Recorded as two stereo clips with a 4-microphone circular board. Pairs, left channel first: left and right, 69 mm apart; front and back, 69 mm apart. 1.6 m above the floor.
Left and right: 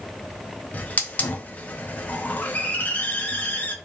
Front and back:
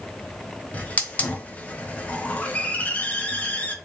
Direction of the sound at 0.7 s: 45° left.